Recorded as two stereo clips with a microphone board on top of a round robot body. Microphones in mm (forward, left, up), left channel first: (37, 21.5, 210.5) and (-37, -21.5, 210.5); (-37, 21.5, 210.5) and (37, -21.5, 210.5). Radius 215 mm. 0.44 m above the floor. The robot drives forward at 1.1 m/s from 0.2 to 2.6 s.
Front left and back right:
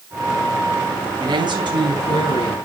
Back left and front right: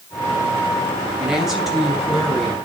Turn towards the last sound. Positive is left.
turn(degrees=-130)